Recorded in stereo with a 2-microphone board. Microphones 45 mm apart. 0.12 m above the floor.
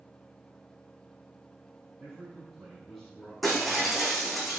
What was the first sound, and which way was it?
A man speaking, 5° left (ahead or behind).